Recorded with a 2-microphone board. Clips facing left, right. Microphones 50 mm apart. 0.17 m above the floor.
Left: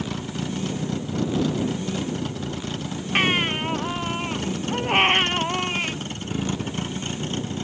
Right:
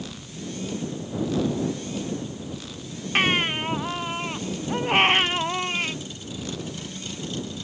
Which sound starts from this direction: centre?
A baby crying, at 3.1 s.